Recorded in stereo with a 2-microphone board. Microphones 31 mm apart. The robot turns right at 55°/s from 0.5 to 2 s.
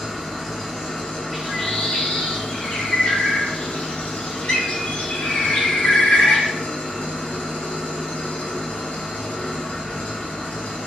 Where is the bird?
20° left, 1.4 m; by 6.5 s 60° left, 1.4 m.